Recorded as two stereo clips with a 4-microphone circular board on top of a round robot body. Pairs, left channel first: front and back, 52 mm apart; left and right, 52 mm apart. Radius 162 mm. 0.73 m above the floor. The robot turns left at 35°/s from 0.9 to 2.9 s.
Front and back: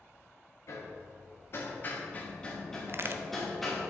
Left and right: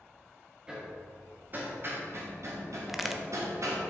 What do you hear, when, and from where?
0.7 s hammering: 15° right, 1.7 m; by 3.9 s 85° right, 1.7 m
2.9 s a crack: 175° right, 0.7 m